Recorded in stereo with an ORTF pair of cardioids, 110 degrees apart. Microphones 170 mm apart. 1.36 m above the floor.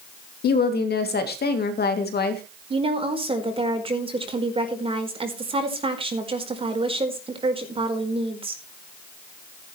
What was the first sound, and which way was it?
A woman speaking, 70° left.